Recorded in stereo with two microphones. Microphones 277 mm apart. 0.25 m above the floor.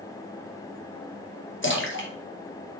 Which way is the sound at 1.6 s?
45° left (ahead or behind).